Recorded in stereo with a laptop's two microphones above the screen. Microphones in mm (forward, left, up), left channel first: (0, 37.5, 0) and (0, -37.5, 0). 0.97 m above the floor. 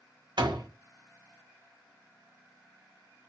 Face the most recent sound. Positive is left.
turn(degrees=-80)